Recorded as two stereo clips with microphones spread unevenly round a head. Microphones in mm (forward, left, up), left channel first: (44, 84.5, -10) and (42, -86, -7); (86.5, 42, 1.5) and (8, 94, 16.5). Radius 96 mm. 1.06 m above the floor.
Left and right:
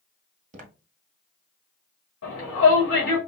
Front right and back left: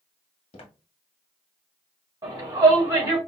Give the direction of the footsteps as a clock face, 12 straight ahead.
2 o'clock.